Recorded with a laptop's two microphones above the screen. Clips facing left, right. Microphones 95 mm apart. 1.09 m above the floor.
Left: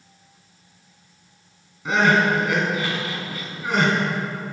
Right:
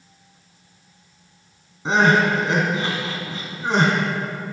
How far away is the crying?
About 3 m.